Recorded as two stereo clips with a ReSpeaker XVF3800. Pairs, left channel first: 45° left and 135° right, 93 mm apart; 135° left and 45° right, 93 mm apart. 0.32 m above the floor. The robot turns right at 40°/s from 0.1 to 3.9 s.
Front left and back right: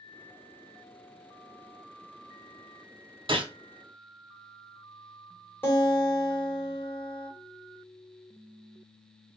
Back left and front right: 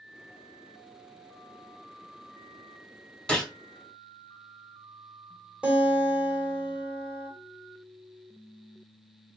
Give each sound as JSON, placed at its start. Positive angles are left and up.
{"t": 3.3, "sound": "a gunshot", "azimuth_deg": -145, "distance_m": 1.0}
{"t": 5.6, "sound": "a guitar", "azimuth_deg": 15, "distance_m": 1.3}